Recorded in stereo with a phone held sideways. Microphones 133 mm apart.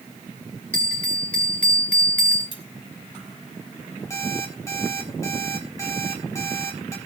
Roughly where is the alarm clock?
Left.